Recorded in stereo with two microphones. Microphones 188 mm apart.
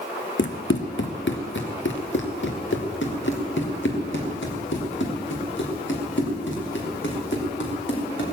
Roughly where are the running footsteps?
Left.